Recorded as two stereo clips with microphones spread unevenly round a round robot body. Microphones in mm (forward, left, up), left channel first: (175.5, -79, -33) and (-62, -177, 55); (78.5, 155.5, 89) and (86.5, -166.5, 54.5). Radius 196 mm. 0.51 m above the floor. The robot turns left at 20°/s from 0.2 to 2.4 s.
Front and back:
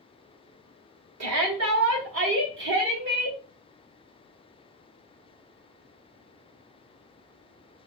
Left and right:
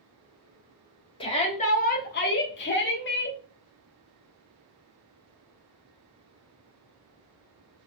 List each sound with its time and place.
1.2 s a shout: 165° left, 1.3 m; by 3.4 s 145° left, 1.3 m